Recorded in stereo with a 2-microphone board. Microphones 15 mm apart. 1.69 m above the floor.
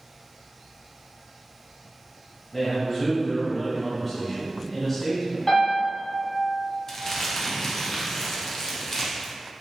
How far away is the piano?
About 1.7 m.